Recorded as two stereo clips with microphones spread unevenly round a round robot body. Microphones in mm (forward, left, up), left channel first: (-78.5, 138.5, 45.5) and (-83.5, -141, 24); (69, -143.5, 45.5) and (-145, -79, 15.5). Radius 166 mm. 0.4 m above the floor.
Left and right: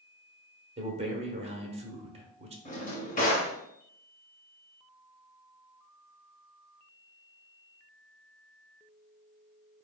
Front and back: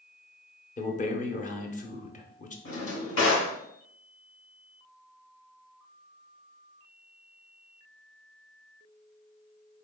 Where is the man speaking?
55° right, 0.9 m.